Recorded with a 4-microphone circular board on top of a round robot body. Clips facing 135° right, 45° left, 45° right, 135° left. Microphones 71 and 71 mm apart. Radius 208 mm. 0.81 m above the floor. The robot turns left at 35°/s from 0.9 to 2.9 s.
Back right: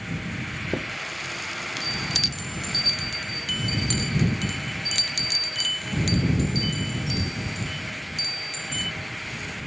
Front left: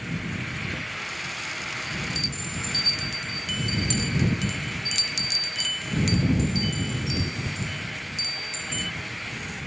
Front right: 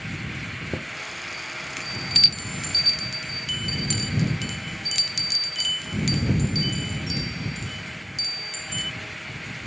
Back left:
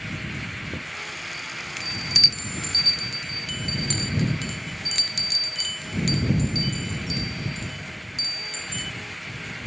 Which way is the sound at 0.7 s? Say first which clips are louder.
Back right 3 dB, front right 1 dB; 105° right.